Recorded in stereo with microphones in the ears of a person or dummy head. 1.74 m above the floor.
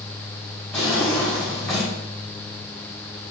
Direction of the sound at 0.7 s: Centre (ahead or behind).